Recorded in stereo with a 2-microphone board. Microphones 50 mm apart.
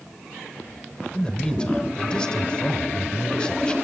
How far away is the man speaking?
About 1.3 m.